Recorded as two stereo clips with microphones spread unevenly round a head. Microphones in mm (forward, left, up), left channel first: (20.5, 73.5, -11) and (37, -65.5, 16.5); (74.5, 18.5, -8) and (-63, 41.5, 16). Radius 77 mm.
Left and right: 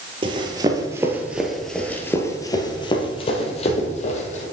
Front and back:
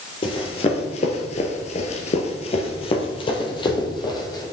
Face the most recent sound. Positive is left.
turn(degrees=55)